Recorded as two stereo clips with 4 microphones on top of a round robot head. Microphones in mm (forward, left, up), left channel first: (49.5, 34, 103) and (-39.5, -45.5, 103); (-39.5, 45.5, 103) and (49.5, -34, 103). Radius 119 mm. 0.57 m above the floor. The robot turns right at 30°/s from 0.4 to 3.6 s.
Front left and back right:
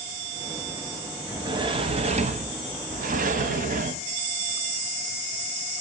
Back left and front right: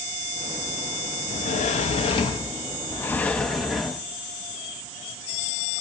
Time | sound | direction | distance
1.3 | a sliding door | 160° left | 1.0 m